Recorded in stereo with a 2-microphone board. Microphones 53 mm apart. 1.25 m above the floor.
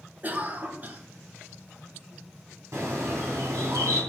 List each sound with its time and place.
0.2 s a cough: 35° right (ahead or behind), 1.1 m
2.7 s a bird: 65° right (ahead or behind), 4.5 m